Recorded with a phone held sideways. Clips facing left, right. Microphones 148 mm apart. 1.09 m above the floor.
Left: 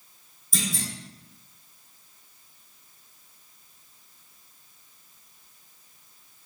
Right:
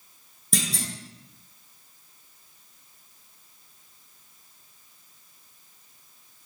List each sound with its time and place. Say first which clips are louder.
0.5 s a clunk: right 1 dB; 65° right (ahead or behind), 0.8 m